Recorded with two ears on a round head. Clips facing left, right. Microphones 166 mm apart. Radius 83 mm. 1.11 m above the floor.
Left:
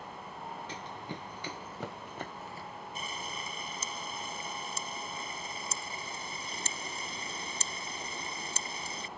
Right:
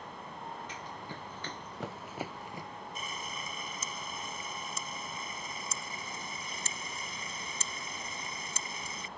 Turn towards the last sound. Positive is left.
turn(degrees=30)  # may be behind; listen again after turning